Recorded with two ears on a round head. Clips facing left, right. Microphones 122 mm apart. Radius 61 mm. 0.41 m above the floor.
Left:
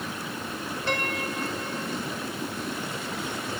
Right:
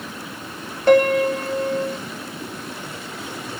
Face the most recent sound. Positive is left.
turn(degrees=-35)  # may be behind; listen again after turning